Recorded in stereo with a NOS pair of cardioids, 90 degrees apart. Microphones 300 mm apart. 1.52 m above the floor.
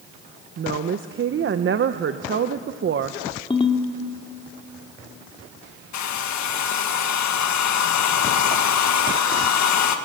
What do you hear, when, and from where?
0.6 s a woman speaking: 45° right, 1.0 m
3.5 s a ringtone: 15° left, 2.5 m
5.9 s a hair dryer: 65° left, 1.8 m